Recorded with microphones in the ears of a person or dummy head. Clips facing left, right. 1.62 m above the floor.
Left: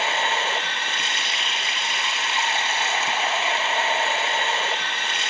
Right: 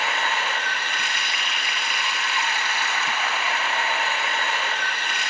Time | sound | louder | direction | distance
0.0 | running water | left 2 dB | 30° left (ahead or behind) | 1.1 m